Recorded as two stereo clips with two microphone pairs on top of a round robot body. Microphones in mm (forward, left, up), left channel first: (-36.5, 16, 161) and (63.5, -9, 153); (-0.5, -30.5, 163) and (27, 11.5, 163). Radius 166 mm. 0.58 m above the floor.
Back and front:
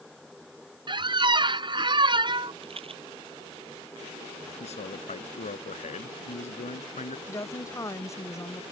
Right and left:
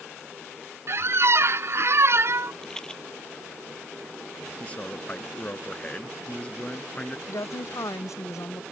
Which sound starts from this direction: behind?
A man speaking, at 4.6 s.